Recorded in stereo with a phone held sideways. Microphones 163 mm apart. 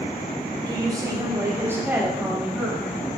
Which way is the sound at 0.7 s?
25° right (ahead or behind).